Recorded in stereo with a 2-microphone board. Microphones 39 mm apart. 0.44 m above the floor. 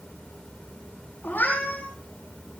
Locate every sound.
1.2 s a cat meowing: 50° left (ahead or behind), 7.5 m